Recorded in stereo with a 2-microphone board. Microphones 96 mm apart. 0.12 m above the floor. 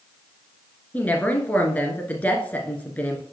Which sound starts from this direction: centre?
A woman speaking, at 0.9 s.